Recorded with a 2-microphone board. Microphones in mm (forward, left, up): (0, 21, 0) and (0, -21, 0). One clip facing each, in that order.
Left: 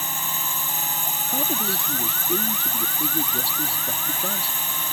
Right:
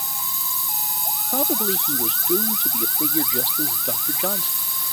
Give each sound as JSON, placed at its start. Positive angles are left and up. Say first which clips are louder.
{"t": 0.0, "sound": "a drone", "louder": "left 3 dB", "side_deg": 45}
{"t": 1.3, "sound": "a man speaking", "louder": "right 4 dB", "side_deg": -30}